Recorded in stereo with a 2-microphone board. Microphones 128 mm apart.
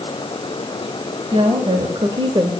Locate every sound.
1.3 s a woman speaking: 40° right (ahead or behind), 2 m; by 2.5 s 35° right (ahead or behind), 1.1 m